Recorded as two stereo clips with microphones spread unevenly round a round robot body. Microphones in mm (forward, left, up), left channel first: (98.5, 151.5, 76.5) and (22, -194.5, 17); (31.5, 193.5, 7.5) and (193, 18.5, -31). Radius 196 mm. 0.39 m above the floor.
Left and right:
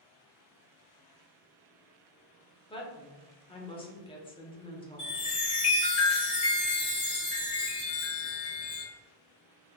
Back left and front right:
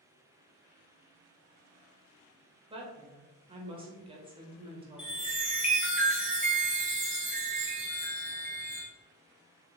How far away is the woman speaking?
About 1.0 m.